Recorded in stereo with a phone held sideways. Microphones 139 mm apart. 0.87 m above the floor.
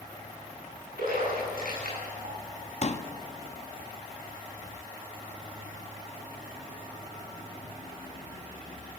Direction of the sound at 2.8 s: 50° left (ahead or behind).